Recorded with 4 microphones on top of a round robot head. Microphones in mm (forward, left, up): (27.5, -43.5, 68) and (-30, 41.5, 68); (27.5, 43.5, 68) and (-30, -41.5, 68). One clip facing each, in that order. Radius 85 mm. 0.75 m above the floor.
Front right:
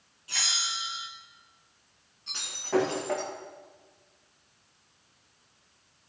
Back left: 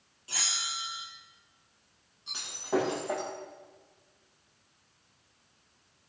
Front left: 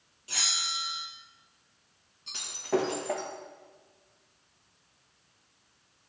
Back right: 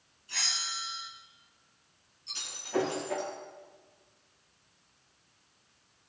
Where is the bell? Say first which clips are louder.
Front right 2 dB, front left 2 dB; 65° left, 4 m.